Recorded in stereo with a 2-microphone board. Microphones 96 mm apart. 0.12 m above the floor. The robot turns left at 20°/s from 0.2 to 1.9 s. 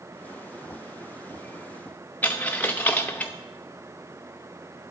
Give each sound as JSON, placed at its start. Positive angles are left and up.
{"t": 2.2, "sound": "a dropped coin", "side_deg": 20, "distance_m": 0.7}